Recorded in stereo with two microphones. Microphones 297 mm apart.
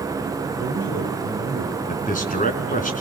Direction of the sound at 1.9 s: 25° left (ahead or behind).